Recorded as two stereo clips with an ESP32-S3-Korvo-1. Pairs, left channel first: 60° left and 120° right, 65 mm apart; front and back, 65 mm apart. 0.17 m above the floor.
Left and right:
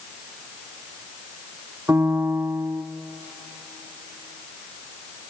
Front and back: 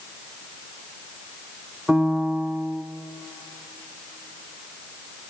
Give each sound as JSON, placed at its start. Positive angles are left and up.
{"t": 1.9, "sound": "a piano", "azimuth_deg": -105, "distance_m": 0.8}